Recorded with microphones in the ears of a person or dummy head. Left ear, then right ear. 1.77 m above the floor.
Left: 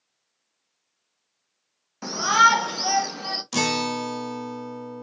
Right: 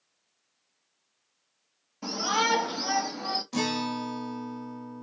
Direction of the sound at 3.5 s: 65° left (ahead or behind).